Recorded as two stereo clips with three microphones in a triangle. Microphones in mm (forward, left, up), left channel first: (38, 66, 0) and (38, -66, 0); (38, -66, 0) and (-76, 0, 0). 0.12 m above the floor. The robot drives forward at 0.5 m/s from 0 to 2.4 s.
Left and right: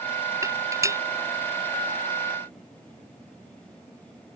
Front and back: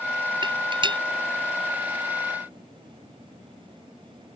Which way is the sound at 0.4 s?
155° right.